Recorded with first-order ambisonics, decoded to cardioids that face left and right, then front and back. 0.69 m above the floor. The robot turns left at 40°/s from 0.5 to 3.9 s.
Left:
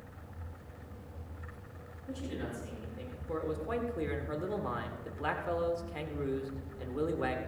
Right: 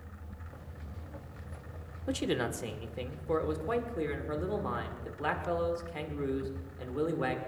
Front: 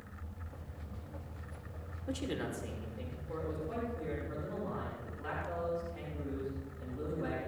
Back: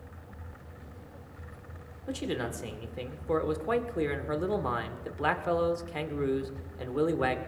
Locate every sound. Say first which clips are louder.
2.1 s a man speaking: right 9 dB, back 5 dB; 100° right, 1.8 m; by 7.4 s 175° right, 1.8 m